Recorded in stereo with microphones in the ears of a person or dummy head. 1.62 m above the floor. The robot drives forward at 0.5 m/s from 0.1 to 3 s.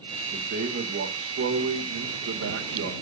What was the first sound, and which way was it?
A man speaking, 55° right (ahead or behind).